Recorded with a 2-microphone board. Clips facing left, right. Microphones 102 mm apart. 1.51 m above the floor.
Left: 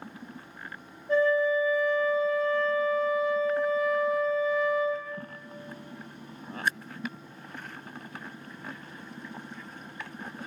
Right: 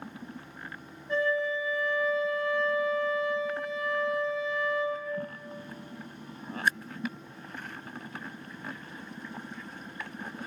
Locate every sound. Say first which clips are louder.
1.1 s a flute: left 5 dB; 40° left (ahead or behind), 1.1 m